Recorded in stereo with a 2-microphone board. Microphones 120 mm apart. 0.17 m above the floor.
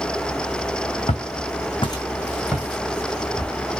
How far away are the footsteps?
About 0.7 m.